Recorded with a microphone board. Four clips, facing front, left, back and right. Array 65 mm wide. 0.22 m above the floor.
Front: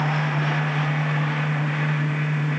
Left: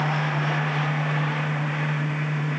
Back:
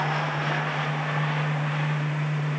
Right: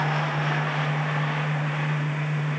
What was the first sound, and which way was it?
Only background noise.